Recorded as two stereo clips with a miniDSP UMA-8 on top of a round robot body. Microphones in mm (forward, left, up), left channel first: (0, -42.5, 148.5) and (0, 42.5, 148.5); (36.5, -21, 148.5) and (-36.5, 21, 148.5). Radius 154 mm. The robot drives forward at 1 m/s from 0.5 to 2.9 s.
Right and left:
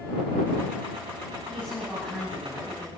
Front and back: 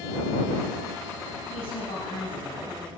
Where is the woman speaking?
10° right, 8.5 m; by 2.9 s 15° right, 7 m.